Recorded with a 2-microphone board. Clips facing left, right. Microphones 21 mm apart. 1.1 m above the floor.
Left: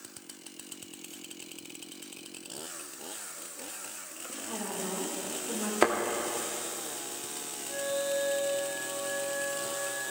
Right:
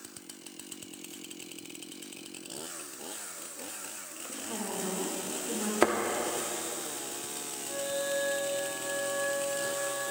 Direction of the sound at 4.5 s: 5° right (ahead or behind).